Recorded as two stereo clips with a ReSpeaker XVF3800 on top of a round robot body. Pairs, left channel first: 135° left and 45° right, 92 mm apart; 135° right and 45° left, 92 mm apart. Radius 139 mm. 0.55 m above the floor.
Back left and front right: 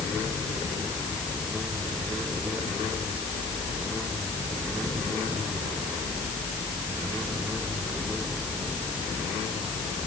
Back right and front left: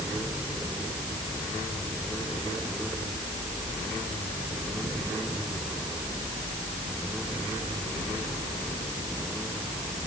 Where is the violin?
I don't hear a violin.